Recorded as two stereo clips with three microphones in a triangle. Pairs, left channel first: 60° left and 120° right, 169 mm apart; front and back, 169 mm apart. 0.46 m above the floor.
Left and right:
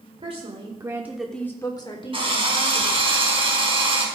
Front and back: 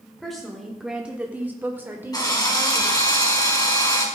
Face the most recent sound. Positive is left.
turn(degrees=-65)